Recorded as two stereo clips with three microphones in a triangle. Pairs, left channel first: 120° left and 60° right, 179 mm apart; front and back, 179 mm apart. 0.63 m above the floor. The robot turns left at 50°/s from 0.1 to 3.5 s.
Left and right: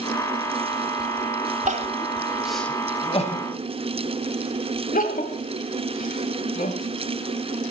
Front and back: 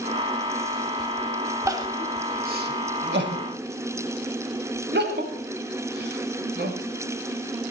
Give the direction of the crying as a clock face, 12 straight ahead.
4 o'clock.